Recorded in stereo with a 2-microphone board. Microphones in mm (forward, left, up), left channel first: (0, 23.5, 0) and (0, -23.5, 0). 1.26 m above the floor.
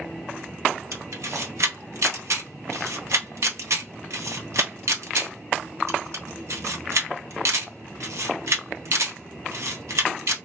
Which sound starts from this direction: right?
A camera shutter, at 0.9 s.